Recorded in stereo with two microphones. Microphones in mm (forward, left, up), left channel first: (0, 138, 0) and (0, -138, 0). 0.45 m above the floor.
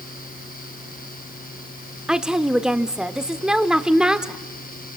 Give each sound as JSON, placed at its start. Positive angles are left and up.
{"t": 2.1, "sound": "a woman speaking", "side_deg": -5, "distance_m": 1.0}